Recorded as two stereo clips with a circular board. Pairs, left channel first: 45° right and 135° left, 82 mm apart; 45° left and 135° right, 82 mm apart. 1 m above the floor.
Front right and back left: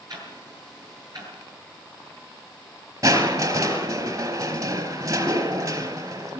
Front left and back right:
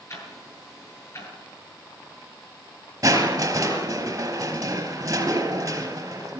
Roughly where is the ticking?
Left.